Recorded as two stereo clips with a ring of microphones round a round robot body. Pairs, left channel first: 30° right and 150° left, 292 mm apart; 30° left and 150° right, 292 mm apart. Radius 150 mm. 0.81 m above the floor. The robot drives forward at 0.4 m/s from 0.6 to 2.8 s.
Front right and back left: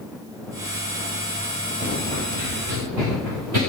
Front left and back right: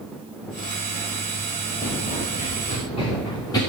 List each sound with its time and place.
1.8 s running footsteps: 85° left, 5 m; by 3.6 s 110° left, 5 m